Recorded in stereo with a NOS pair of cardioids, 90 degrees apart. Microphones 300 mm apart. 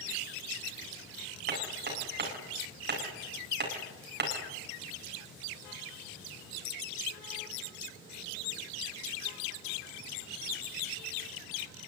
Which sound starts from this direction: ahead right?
Hammering, at 1.5 s.